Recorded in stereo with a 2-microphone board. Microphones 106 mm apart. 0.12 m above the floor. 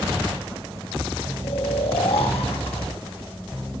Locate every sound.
1.4 s snoring: 75° left (ahead or behind), 3 m